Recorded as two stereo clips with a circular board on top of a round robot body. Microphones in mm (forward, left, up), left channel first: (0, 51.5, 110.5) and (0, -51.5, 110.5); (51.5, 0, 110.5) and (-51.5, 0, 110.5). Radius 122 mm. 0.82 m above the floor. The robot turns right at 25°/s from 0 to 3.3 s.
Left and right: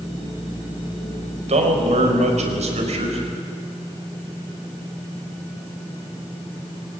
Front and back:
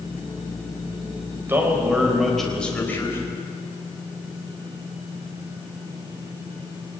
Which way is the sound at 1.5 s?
110° right.